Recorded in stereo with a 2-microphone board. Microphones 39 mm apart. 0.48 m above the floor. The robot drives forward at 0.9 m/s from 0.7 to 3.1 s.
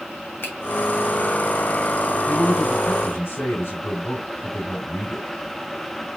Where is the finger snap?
65° left (ahead or behind), 2 m.